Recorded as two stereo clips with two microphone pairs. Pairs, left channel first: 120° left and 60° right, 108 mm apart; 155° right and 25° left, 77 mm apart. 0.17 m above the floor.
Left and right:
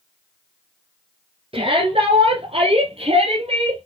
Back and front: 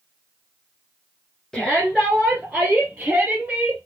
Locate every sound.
1.5 s a shout: 70° right, 2 m; by 3.8 s 50° right, 3.5 m